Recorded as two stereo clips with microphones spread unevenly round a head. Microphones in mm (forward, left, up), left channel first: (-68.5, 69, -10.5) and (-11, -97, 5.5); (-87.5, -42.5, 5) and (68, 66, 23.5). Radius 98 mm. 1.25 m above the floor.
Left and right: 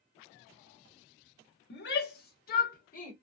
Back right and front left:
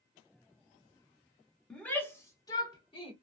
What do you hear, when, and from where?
1.7 s a shout: 130° left, 1.2 m; by 3.1 s 150° left, 2 m